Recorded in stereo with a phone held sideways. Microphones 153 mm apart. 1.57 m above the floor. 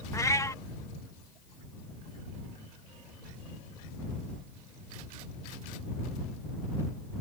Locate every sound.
0.1 s a cat meowing: 20° left (ahead or behind)